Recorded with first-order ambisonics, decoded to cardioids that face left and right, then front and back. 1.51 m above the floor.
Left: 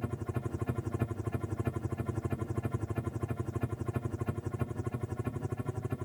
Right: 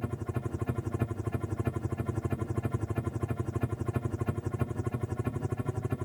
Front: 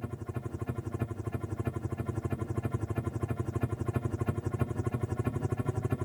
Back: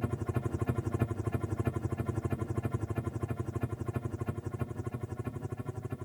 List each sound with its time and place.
0.0 s a helicopter: 165° right; by 6.1 s 25° right